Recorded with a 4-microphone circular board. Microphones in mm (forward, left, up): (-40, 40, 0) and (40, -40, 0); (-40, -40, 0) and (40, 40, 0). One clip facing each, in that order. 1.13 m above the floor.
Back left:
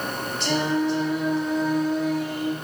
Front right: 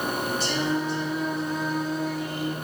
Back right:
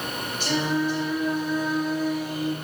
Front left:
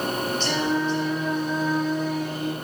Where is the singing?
145° left, 3 m.